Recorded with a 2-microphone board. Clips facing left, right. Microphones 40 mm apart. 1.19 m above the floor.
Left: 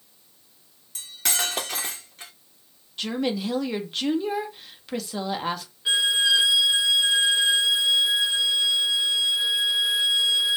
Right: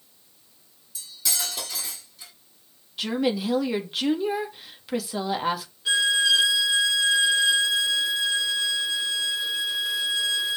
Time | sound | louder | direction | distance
0.9 | cutlery clinking | left 4 dB | 45° left (ahead or behind) | 1.5 m
3.0 | a woman speaking | right 2 dB | 5° right (ahead or behind) | 1.9 m
5.8 | a violin | even | 20° left (ahead or behind) | 3 m